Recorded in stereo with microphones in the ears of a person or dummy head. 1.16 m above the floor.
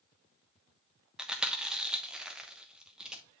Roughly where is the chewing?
Centre.